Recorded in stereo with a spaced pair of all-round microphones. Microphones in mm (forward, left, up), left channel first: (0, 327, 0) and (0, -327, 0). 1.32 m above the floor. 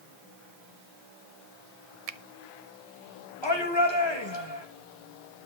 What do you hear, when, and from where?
2.1 s a finger snap: 65° right (ahead or behind), 0.7 m
3.4 s a shout: 40° left (ahead or behind), 2.5 m